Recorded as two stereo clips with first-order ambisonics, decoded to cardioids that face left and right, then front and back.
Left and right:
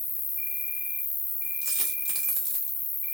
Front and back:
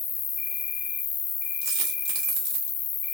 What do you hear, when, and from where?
0.0 s an insect: 30° left, 1.2 m
1.6 s a dropped coin: 170° right, 1.3 m